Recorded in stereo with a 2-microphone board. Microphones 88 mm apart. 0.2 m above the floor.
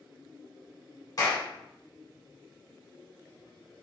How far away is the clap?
About 1.8 m.